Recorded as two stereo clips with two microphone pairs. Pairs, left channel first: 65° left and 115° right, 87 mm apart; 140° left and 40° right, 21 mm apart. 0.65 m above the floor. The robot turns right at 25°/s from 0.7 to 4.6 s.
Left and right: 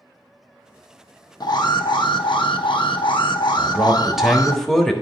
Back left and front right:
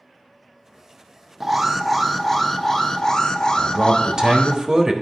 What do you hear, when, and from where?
1.4 s an alarm: 40° left, 0.7 m; by 4.6 s 120° left, 0.7 m
3.6 s a man speaking: 45° right, 1.3 m; by 4.9 s 20° right, 1.3 m